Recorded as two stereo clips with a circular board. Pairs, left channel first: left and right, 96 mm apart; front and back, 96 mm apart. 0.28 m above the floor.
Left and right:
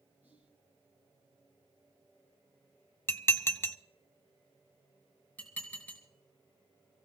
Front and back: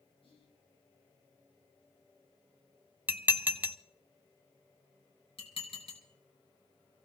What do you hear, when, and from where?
0.2 s whispering: 20° right, 7 m
3.1 s dishes clattering: 125° left, 0.6 m
5.4 s dishes clattering: 15° left, 3 m